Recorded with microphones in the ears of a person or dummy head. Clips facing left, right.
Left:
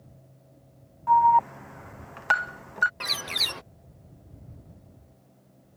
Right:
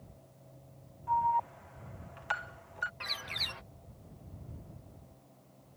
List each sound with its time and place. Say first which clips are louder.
1.1 s an alarm: left 11 dB; 70° left (ahead or behind)
3.0 s a bird: left 8 dB; 55° left (ahead or behind)